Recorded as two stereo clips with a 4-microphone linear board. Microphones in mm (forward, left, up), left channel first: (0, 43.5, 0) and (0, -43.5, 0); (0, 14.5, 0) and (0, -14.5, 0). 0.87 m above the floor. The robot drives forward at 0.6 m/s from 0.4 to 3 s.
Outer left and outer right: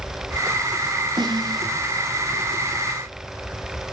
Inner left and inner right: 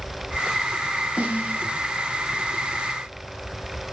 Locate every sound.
1.2 s a snare drum: 55° right (ahead or behind), 5.5 m; by 1.7 s 50° right (ahead or behind), 5.5 m